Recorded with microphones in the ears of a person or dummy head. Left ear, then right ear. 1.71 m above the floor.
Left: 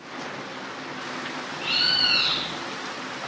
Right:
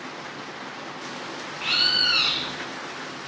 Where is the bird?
45° right (ahead or behind), 3.5 m.